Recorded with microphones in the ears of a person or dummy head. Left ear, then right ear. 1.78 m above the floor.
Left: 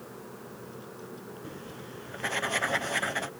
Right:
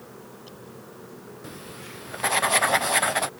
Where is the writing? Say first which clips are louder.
Right 3 dB; 30° right (ahead or behind).